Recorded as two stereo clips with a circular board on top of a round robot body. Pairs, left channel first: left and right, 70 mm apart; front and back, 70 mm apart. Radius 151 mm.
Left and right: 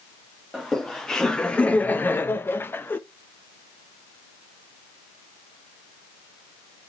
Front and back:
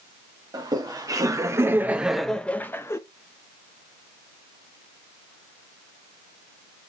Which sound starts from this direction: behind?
Laughter, at 0.5 s.